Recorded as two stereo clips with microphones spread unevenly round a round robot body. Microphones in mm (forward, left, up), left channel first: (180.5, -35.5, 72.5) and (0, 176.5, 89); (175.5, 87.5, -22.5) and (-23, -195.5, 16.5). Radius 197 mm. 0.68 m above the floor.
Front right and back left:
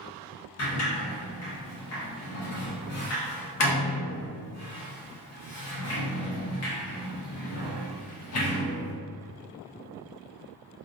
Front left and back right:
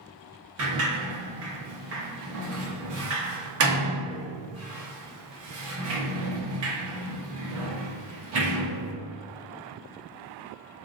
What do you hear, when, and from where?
0.6 s a sliding door: 70° right, 0.8 m